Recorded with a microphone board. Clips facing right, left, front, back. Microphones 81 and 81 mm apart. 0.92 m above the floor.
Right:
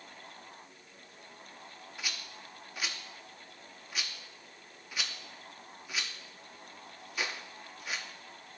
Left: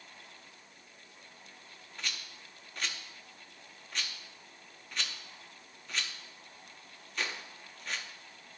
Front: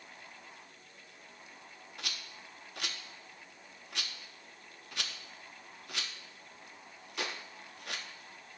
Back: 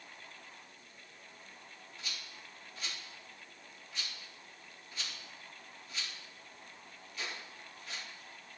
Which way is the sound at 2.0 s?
5° right.